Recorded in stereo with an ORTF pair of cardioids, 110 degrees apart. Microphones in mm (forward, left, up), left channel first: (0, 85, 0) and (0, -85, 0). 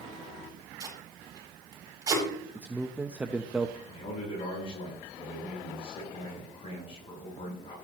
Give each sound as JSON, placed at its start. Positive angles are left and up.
{"t": 0.8, "sound": "tape being pulled", "azimuth_deg": -20, "distance_m": 7.5}
{"t": 2.5, "sound": "a man speaking", "azimuth_deg": -10, "distance_m": 0.9}
{"t": 3.9, "sound": "a man speaking", "azimuth_deg": 35, "distance_m": 8.5}